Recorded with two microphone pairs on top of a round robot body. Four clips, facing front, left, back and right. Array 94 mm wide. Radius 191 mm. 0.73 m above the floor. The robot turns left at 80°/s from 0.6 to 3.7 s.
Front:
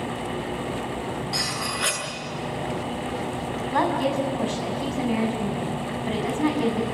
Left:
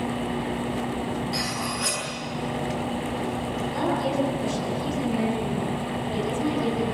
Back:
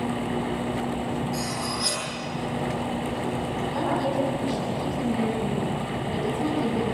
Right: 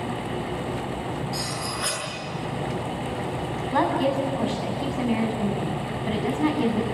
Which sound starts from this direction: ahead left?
Cutlery clinking, at 1.3 s.